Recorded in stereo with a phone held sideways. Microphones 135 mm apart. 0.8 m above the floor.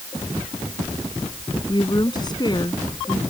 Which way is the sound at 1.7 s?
35° left (ahead or behind).